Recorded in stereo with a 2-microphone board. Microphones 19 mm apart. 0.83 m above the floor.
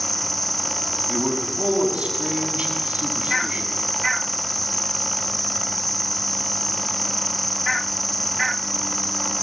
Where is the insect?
5° left (ahead or behind), 1.0 m.